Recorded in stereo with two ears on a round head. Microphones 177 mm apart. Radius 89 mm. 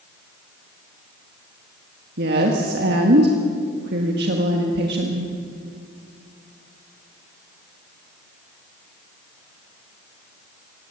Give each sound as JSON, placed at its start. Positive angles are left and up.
{"t": 2.2, "sound": "a woman speaking", "side_deg": -50, "distance_m": 1.6}